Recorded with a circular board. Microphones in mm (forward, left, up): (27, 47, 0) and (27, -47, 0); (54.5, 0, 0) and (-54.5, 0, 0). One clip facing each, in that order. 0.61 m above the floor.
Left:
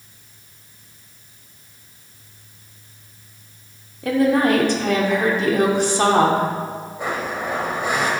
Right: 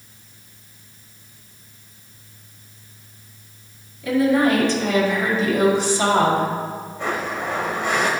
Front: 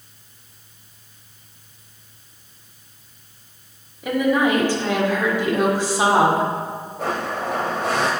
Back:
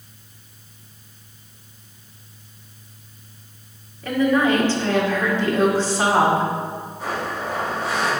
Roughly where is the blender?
Ahead.